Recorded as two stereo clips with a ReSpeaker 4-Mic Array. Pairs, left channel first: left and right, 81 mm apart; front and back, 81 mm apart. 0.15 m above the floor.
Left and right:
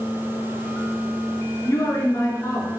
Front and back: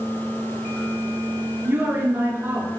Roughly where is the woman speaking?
Behind left.